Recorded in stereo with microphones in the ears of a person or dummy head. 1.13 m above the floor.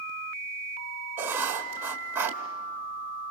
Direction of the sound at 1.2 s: 10° right (ahead or behind).